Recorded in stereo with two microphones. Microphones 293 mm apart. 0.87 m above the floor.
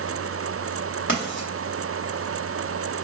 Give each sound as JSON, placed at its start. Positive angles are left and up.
{"t": 1.1, "sound": "writing", "side_deg": 40, "distance_m": 1.1}